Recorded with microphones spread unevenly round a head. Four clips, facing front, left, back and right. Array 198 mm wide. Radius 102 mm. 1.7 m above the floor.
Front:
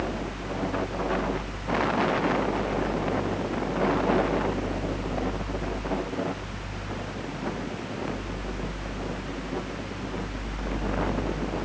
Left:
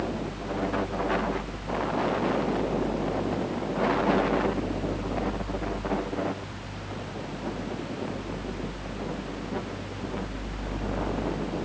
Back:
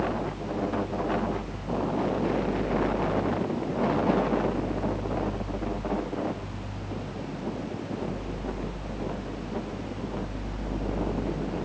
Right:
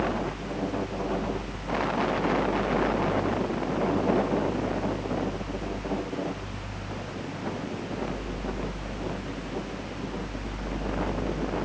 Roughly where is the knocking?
No knocking in this recording.